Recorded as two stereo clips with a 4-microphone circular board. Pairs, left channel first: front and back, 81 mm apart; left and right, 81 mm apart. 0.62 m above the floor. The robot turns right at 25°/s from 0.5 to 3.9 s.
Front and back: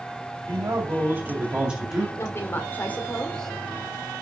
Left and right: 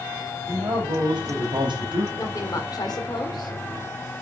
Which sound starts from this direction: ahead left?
A woman speaking, at 2.2 s.